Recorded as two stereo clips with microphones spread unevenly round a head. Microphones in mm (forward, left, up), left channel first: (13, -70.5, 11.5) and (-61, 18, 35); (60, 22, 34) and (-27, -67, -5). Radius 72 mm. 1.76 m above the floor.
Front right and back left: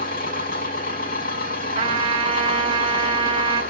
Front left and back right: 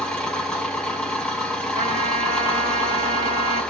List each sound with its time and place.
0.0 s an engine running: 35° right, 7.5 m
1.8 s a trumpet: 165° left, 4.5 m